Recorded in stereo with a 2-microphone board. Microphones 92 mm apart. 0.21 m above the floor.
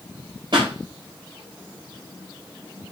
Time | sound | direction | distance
0.5 | a pop | 55° right (ahead or behind) | 9 m